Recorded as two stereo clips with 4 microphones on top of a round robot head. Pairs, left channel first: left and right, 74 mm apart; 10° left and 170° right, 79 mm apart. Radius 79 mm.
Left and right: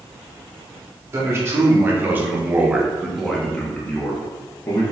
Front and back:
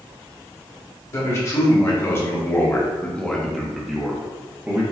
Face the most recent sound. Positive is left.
turn(degrees=125)